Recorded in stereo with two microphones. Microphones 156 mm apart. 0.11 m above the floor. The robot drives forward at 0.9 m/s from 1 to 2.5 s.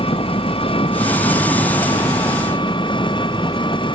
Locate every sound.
0.0 s an engine running: 35° left (ahead or behind); by 3.9 s 30° left (ahead or behind)